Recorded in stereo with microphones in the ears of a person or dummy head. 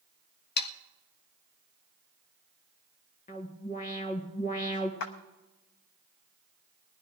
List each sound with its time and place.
0.6 s sawing: 65° left (ahead or behind), 0.8 m
3.3 s an alarm: 45° left (ahead or behind), 1.7 m
5.0 s a clap: 55° left (ahead or behind), 0.9 m